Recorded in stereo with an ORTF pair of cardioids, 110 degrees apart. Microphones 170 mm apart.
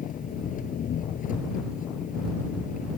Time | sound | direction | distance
0.0 | an engine running | 55° left | ?